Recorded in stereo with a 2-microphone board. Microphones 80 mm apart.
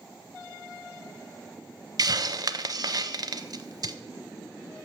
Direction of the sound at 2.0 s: 55° right (ahead or behind).